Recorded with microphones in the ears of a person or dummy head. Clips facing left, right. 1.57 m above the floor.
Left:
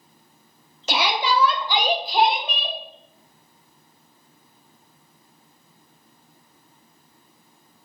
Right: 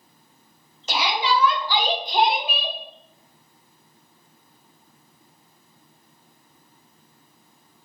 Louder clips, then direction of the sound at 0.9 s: Left 1 dB; 60° left (ahead or behind).